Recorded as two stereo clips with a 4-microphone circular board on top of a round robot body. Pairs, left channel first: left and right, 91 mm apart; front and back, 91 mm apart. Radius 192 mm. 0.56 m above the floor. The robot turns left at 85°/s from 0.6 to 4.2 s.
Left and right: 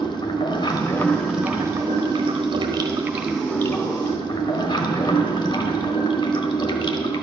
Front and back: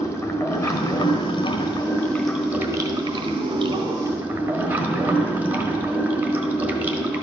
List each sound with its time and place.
0.0 s running water: 55° left, 1.4 m; by 7.2 s 110° left, 1.4 m